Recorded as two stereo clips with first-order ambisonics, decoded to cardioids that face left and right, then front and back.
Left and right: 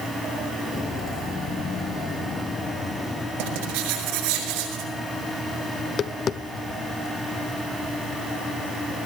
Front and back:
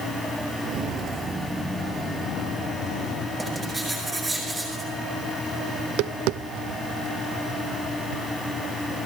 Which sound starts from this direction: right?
Writing, at 3.4 s.